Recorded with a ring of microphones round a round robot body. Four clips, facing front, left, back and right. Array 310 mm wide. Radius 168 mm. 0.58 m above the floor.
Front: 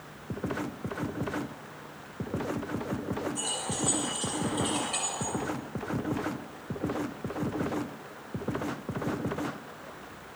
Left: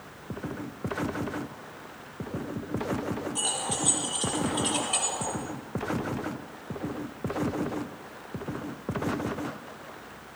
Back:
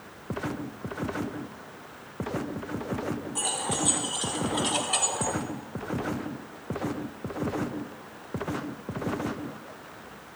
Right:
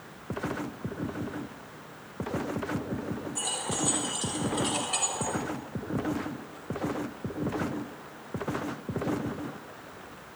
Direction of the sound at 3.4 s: 165° left.